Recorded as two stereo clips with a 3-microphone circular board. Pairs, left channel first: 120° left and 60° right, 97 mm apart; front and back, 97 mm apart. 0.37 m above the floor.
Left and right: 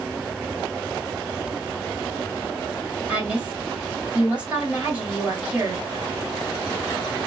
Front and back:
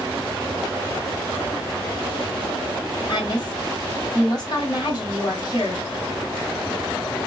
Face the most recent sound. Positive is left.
turn(degrees=10)